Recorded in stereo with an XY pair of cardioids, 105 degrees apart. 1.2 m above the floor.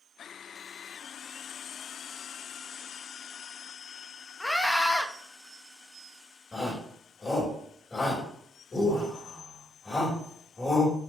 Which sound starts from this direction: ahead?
A scream, at 4.4 s.